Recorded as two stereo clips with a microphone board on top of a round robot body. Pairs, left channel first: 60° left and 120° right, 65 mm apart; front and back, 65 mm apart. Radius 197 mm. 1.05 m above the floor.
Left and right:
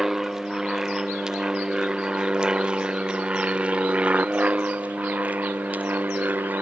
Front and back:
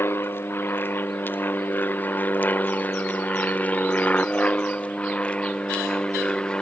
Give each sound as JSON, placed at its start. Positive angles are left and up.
{"t": 0.0, "sound": "an aircraft", "azimuth_deg": -40}